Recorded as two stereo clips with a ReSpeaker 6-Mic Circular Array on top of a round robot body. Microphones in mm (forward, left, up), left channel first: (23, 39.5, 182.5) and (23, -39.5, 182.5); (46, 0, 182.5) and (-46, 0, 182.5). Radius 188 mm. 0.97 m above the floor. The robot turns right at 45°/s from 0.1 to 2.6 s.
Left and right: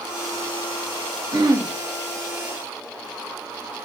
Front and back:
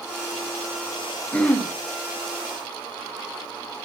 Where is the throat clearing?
75° right, 1.1 m; by 1.7 s 60° right, 1.1 m.